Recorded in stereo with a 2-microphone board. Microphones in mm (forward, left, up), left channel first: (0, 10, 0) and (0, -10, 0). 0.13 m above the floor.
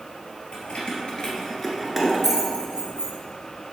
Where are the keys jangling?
65° left (ahead or behind), 1.7 m; by 3.1 s 40° right (ahead or behind), 1.9 m.